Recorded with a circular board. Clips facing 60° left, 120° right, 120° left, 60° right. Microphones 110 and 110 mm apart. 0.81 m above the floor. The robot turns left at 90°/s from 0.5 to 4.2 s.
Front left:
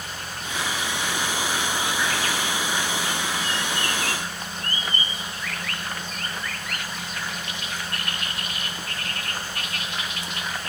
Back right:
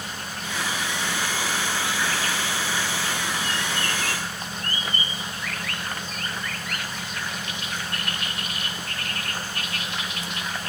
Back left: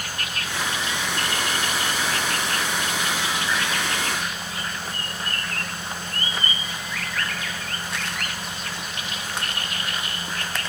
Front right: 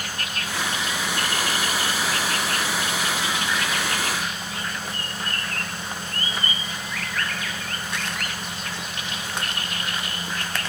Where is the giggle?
No giggle in this recording.